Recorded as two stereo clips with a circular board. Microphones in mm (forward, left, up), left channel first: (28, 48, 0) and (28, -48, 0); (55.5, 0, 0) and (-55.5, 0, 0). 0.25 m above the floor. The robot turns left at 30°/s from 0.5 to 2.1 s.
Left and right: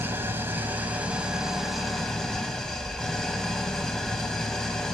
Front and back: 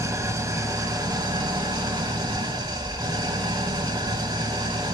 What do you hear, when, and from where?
0.0 s an engine running: 140° right, 0.7 m; by 4.9 s 170° left, 0.7 m